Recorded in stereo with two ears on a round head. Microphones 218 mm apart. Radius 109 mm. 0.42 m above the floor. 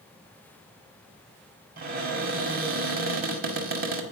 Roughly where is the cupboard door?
Right.